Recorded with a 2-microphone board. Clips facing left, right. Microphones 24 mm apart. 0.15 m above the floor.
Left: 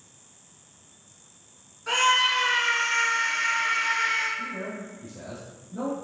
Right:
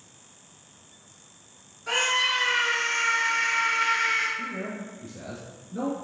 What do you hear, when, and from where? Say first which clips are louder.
1.9 s a scream: left 2 dB; 20° left (ahead or behind), 1.9 m; by 4.3 s centre (ahead or behind), 2.5 m
4.4 s a man speaking: even; 25° right (ahead or behind), 1.7 m